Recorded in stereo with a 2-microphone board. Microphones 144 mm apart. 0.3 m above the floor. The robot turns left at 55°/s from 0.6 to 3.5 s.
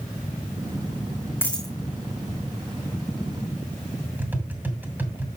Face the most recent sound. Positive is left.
turn(degrees=-15)  # may be behind; listen again after turning